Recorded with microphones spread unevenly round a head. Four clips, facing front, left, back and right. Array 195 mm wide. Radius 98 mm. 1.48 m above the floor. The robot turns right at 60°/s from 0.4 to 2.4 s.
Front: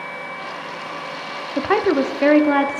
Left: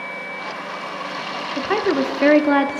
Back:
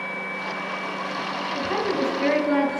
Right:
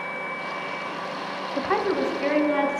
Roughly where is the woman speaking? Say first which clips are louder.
Left 4 dB, front 8 dB; ahead.